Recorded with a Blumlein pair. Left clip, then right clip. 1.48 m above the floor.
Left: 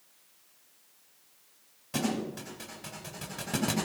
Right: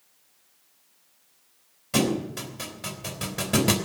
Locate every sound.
1.9 s a thud: 50° right, 3.5 m